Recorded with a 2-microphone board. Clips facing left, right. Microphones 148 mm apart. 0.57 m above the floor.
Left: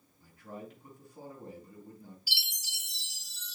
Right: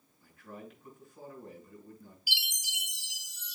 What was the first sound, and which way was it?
A man speaking, 35° left (ahead or behind).